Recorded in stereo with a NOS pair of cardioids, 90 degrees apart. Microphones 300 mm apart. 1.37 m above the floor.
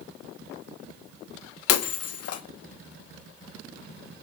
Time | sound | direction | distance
1.7 | breaking glass | 60° left | 1.5 m